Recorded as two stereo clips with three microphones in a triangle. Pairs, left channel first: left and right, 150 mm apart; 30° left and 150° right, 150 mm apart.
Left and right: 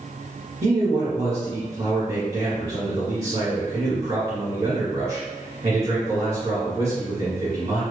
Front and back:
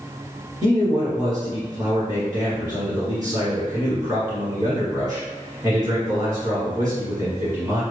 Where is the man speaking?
95° right, 1.6 m.